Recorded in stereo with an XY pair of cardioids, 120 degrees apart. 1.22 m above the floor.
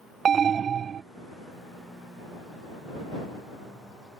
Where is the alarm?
40° right.